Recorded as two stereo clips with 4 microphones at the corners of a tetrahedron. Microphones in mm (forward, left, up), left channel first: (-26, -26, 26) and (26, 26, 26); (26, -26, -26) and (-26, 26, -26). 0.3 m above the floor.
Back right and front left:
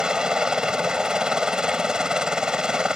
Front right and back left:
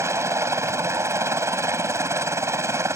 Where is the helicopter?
120° left.